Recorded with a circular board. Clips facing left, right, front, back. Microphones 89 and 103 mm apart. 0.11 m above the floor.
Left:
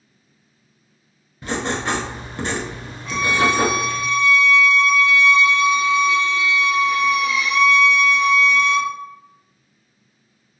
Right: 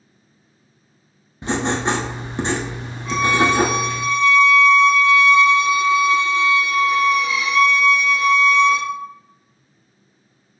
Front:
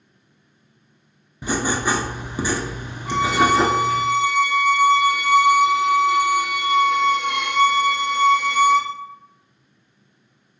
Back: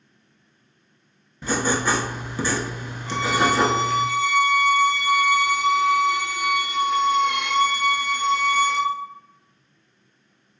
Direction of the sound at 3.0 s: 5° right.